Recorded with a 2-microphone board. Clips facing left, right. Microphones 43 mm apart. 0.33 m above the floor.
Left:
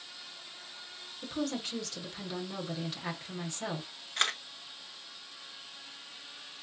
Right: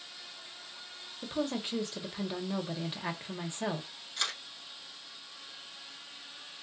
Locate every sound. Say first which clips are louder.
1.2 s a woman speaking: right 1 dB; 20° right (ahead or behind), 1.0 m
4.2 s a camera shutter: left 5 dB; 50° left (ahead or behind), 0.7 m